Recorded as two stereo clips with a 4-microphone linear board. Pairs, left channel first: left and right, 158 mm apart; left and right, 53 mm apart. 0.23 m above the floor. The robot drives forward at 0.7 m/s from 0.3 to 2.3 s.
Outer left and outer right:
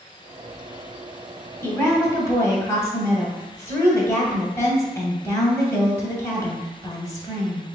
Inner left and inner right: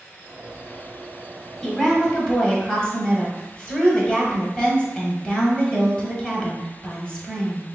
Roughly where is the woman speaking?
Centre.